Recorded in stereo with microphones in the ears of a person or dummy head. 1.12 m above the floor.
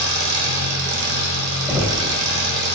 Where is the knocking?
10° right (ahead or behind), 0.8 m.